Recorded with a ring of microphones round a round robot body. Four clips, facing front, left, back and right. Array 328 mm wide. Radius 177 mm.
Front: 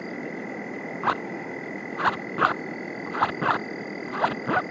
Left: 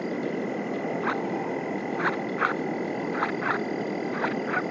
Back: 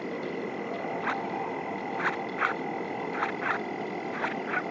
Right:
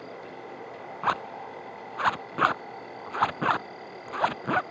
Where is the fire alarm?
No fire alarm in this recording.